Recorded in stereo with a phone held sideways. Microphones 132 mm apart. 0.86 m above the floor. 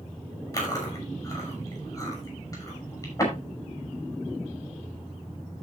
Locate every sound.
0.5 s chewing: 25° left (ahead or behind), 6 m